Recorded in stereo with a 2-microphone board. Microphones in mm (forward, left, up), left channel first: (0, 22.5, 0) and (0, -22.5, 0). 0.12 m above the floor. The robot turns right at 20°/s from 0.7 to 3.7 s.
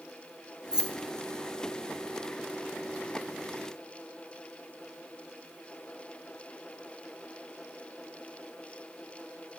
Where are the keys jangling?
15° right (ahead or behind), 0.9 m.